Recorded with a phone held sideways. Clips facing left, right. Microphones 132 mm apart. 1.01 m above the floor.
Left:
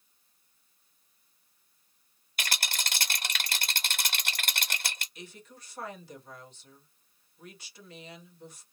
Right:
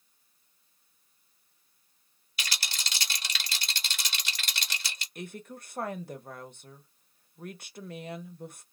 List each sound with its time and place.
2.4 s a rattle: 50° left (ahead or behind), 0.8 m
5.2 s a woman speaking: 50° right (ahead or behind), 0.8 m